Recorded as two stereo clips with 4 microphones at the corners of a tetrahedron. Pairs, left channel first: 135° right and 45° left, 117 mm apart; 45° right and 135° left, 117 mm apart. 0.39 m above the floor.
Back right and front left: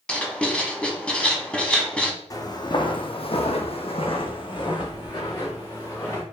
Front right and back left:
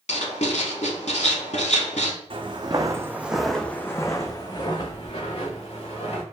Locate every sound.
0.1 s writing: 55° right, 0.8 m
2.3 s footsteps: 170° left, 0.9 m; by 6.2 s 75° right, 1.8 m